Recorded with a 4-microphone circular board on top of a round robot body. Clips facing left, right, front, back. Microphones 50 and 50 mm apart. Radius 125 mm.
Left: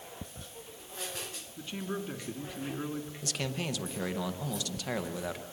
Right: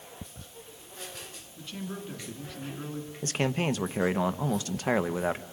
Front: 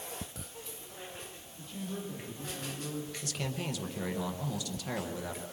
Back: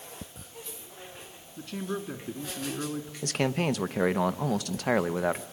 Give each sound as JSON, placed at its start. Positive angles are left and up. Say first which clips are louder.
{"t": 1.6, "sound": "a man speaking", "louder": "left 2 dB, back 7 dB", "azimuth_deg": 155, "distance_m": 3.0}
{"t": 3.2, "sound": "a man speaking", "louder": "right 9 dB, back 14 dB", "azimuth_deg": -145, "distance_m": 0.8}